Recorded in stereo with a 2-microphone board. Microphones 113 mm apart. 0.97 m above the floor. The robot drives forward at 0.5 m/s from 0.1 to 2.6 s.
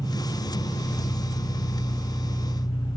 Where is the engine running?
65° left (ahead or behind), 3 m; by 3.0 s 50° left (ahead or behind), 4 m.